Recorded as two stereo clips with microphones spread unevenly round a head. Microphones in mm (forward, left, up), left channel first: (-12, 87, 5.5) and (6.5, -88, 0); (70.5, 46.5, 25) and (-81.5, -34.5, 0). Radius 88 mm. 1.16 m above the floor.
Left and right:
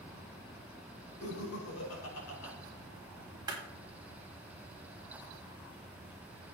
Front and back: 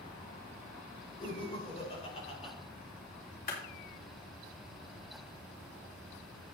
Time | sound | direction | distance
1.2 | laughter | 90° left | 4 m
3.5 | a clap | 15° right | 3.5 m